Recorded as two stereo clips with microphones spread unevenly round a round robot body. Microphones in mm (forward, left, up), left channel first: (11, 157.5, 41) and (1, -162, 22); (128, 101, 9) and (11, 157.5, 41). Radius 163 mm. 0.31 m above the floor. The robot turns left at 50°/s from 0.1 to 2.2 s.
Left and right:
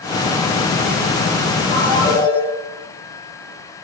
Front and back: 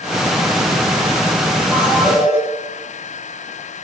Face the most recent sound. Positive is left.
turn(degrees=5)